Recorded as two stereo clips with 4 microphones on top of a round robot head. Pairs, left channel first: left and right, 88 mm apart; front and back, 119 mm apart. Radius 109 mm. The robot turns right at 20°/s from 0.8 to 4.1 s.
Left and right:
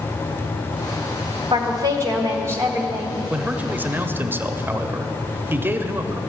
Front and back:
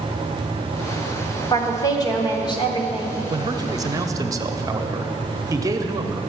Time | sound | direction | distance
1.5 | a woman speaking | 60° right | 1.5 m
3.3 | a man speaking | 155° right | 0.9 m